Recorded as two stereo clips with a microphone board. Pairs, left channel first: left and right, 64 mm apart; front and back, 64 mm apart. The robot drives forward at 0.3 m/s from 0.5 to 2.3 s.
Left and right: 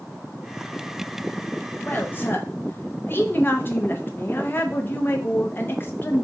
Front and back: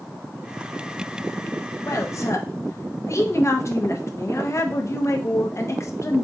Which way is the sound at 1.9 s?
30° left.